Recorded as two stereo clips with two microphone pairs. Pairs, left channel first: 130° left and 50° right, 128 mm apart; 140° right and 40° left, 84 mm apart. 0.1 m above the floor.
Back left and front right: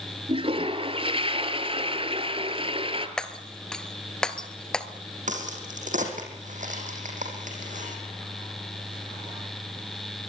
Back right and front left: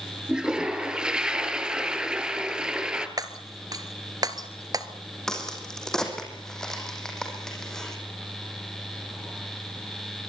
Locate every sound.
0.3 s a toilet flushing: 35° right, 1.8 m
3.2 s breaking glass: 45° left, 1.2 m
5.3 s a crack: 55° right, 4.5 m